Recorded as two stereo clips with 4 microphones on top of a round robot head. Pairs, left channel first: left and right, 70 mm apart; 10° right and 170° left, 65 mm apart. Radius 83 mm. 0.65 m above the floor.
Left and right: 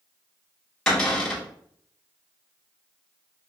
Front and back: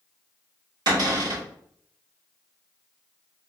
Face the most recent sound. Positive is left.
turn(degrees=170)